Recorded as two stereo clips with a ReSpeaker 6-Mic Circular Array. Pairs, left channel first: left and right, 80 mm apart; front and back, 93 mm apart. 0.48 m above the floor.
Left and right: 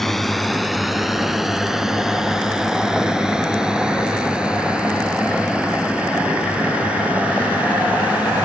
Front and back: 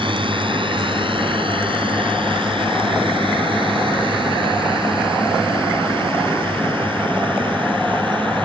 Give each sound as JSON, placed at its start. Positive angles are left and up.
{"t": 0.0, "sound": "a drone", "azimuth_deg": 175}